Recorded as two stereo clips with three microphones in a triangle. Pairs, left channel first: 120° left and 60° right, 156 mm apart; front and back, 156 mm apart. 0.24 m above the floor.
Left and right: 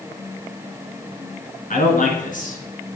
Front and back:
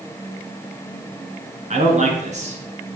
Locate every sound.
1.7 s a man speaking: 145° left, 3 m